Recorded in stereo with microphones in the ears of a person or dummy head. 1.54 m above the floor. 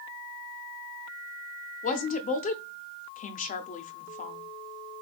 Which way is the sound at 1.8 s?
40° left (ahead or behind).